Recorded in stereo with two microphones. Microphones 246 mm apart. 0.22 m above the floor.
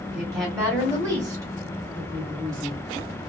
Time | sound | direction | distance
0.1 | a woman speaking | 10° right (ahead or behind) | 1.3 m